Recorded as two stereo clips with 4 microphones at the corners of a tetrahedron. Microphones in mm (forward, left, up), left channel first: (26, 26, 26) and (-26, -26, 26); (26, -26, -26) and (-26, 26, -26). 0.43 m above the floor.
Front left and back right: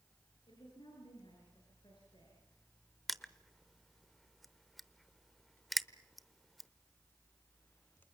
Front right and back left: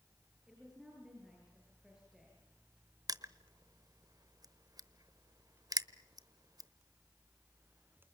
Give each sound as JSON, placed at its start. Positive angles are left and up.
{"t": 0.5, "sound": "a woman speaking", "azimuth_deg": 50, "distance_m": 8.5}
{"t": 3.1, "sound": "crushing", "azimuth_deg": 135, "distance_m": 0.8}